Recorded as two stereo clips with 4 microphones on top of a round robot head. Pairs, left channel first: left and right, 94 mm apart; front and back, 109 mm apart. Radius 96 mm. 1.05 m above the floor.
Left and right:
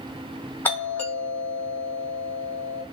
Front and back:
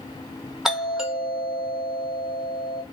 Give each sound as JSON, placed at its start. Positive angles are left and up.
{"t": 0.7, "sound": "a doorbell", "azimuth_deg": 100, "distance_m": 1.2}